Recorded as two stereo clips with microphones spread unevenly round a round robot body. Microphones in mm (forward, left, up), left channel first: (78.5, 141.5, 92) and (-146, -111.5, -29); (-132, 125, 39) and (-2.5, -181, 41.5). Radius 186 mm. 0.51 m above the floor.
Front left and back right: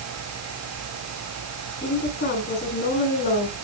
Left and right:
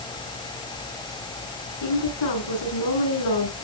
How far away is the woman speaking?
About 9 m.